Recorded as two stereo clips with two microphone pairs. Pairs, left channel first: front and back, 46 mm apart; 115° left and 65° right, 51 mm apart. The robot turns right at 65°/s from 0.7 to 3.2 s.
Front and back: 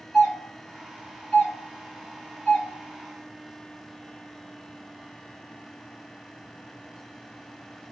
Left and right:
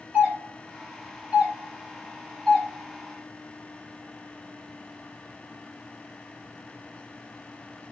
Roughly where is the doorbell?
Right.